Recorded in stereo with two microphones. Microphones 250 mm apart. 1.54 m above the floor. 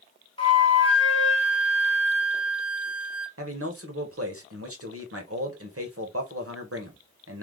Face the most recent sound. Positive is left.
turn(degrees=-60)  # may be behind; listen again after turning